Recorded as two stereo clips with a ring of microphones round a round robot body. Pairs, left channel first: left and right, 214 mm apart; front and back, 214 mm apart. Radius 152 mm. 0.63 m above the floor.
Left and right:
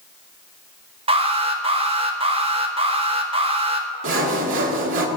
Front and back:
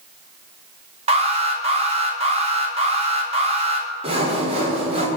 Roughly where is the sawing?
Behind right.